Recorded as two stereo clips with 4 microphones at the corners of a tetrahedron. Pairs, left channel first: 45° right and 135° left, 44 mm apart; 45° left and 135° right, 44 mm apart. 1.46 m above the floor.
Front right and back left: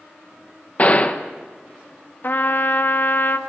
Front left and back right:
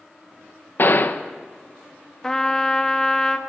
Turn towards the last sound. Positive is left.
turn(degrees=-30)